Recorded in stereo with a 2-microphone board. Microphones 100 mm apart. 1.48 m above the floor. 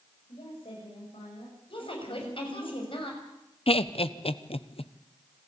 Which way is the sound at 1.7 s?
65° left (ahead or behind).